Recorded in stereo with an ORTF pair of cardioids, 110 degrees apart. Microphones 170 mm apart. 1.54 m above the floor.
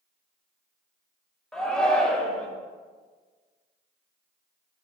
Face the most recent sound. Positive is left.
turn(degrees=5)